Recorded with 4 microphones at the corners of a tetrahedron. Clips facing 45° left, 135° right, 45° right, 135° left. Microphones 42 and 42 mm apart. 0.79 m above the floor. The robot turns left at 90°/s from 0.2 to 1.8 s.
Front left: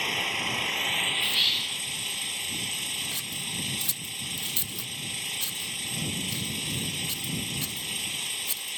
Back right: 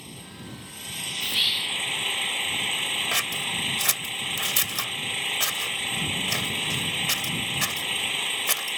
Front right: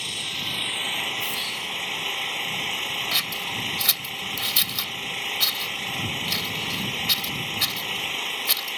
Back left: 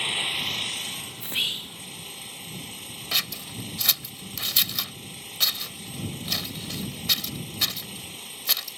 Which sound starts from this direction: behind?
Whispering, at 1.2 s.